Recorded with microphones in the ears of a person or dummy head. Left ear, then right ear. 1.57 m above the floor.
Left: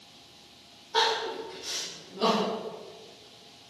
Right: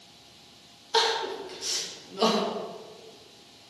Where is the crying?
85° right, 2.5 m.